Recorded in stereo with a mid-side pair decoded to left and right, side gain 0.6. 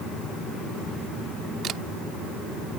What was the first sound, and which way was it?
A camera shutter, 50° right.